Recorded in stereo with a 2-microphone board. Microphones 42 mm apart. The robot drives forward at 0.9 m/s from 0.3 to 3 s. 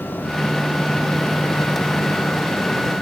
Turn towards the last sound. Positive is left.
No sound to turn to.